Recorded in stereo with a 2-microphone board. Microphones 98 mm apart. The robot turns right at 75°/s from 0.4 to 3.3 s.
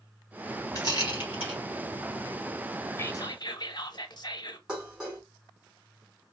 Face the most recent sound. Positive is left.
turn(degrees=-10)  # may be behind; listen again after turning